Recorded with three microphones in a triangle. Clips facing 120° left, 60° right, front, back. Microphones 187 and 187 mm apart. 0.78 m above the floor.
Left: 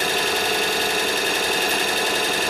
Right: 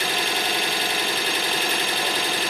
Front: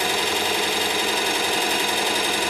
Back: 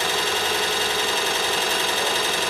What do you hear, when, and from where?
0.0 s an engine running: 75° left, 1.0 m